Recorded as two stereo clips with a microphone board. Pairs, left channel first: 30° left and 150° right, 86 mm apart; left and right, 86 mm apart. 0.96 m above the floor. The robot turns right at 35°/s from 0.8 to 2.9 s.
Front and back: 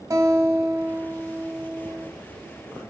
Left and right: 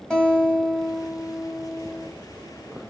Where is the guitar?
170° left, 1.4 m; by 2.1 s 145° right, 1.4 m.